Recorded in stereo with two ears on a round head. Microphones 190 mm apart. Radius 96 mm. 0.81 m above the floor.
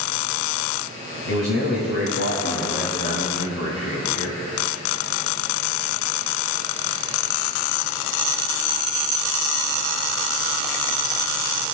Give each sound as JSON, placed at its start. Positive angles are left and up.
{"t": 1.3, "sound": "a man speaking", "side_deg": 55, "distance_m": 6.0}